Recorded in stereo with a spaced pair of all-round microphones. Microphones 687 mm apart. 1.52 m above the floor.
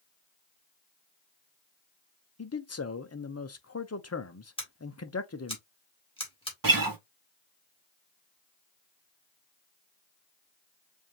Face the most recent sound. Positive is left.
turn(degrees=-30)  # may be behind; listen again after turning